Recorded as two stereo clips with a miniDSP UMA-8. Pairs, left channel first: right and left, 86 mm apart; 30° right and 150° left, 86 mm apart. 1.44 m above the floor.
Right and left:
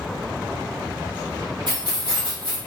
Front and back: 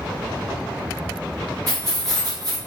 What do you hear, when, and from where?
1.7 s keys jangling: 105° left, 1.4 m